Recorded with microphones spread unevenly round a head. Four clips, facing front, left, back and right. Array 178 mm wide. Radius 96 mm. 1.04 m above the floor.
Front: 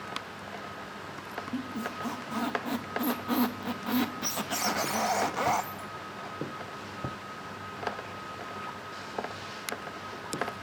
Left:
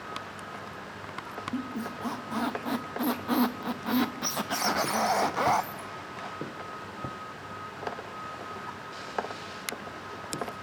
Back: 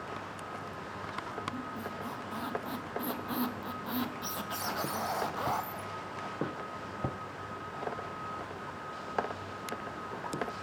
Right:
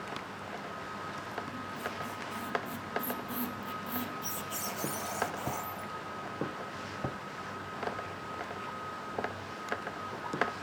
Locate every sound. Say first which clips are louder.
1.5 s a squeak: left 5 dB, front 4 dB; 55° left, 1.1 m